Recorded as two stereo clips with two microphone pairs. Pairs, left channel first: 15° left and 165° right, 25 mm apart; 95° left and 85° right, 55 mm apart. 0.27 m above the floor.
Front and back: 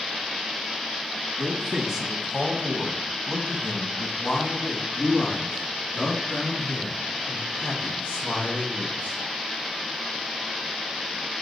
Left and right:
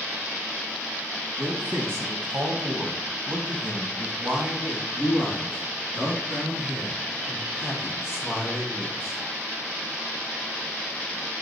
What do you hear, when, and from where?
1.4 s a man speaking: 110° right, 2.5 m; by 9.2 s 5° left, 6 m